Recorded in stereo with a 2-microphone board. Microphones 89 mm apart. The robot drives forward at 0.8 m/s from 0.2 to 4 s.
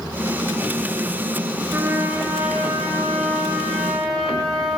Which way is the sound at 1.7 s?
30° right (ahead or behind).